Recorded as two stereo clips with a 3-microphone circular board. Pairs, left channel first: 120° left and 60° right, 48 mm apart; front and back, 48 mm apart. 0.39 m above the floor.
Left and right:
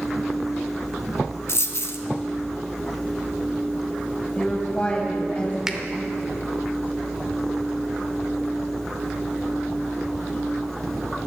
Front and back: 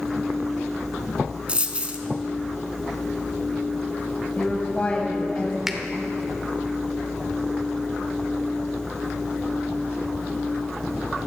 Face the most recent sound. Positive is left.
turn(degrees=-115)